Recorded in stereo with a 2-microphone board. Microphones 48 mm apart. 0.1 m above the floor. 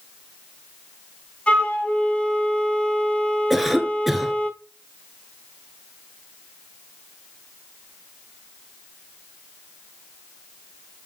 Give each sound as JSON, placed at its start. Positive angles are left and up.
{"t": 1.5, "sound": "a flute", "side_deg": 25, "distance_m": 0.9}
{"t": 3.5, "sound": "a cough", "side_deg": -5, "distance_m": 1.4}